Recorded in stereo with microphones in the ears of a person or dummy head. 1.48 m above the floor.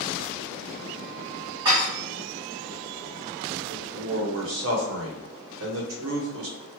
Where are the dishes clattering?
30° right (ahead or behind), 1.6 m.